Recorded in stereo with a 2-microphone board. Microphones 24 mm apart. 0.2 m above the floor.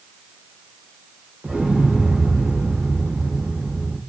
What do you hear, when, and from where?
1.4 s an explosion: 80° right, 4 m